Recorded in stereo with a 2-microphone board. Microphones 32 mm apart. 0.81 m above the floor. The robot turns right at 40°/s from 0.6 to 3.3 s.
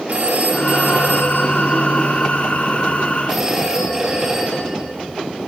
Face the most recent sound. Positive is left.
turn(degrees=-20)